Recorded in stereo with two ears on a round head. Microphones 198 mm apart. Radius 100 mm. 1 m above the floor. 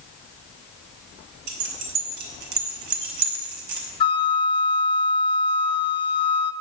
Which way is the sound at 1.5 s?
85° right.